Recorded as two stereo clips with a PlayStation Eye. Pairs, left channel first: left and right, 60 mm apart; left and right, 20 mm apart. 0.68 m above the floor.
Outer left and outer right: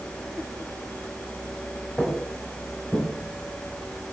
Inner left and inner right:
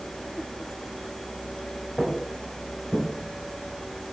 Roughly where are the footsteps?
Centre.